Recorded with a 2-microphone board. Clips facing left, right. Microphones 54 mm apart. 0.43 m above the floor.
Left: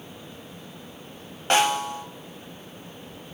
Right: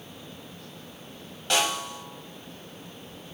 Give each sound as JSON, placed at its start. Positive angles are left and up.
{"t": 1.5, "sound": "a snare drum", "side_deg": 35, "distance_m": 0.6}